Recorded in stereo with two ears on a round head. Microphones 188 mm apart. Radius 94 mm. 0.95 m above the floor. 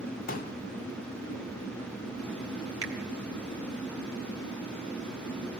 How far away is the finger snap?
About 3 m.